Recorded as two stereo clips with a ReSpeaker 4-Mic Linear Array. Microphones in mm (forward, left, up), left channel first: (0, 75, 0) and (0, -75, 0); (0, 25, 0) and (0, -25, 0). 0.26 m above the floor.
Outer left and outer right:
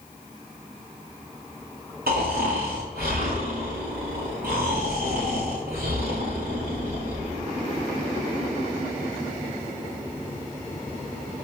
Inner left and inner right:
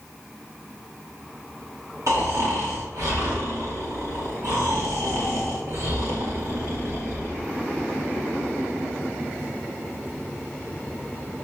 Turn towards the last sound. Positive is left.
turn(degrees=-90)